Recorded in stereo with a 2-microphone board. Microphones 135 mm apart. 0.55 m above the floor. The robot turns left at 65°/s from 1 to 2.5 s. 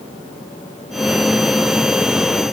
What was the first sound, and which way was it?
Only background noise.